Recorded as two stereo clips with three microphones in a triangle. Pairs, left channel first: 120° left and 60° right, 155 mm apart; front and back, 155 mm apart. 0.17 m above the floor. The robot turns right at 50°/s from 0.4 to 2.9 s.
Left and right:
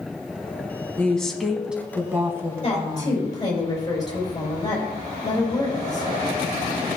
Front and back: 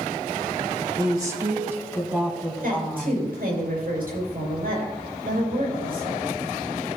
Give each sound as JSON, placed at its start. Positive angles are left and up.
{"t": 1.0, "sound": "a woman speaking", "azimuth_deg": -175, "distance_m": 1.4}
{"t": 2.6, "sound": "a woman speaking", "azimuth_deg": 170, "distance_m": 5.0}